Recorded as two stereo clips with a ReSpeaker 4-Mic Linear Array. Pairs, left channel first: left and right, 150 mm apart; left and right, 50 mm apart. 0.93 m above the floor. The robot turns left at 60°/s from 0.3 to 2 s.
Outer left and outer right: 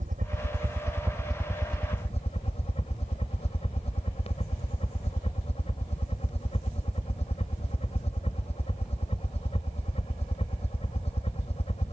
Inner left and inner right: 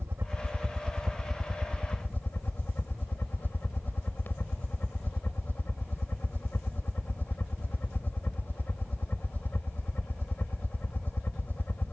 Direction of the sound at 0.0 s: 120° right.